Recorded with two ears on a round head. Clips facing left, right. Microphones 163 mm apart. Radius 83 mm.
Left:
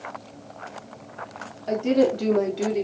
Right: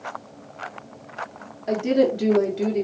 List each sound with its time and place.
1.7 s a woman speaking: 15° right (ahead or behind), 1.0 m; by 2.8 s 5° left (ahead or behind), 0.9 m